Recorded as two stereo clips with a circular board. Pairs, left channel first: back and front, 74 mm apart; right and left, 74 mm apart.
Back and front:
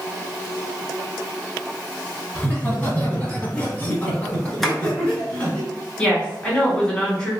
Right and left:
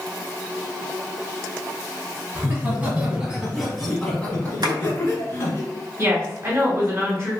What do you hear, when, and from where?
2.4 s laughter: 125° left, 1.4 m; by 5.6 s 110° right, 1.5 m
4.6 s tapping: 95° left, 0.7 m
6.0 s a woman speaking: 110° left, 1.4 m